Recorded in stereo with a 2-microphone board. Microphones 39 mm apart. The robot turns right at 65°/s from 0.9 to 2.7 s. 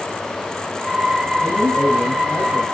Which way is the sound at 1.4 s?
70° left.